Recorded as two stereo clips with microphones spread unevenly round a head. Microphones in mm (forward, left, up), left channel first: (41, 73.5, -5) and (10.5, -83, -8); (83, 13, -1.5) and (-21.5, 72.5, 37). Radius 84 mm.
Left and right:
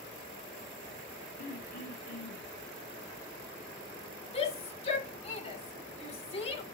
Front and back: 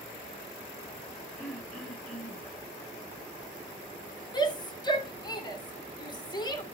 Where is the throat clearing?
50° left, 9.5 m.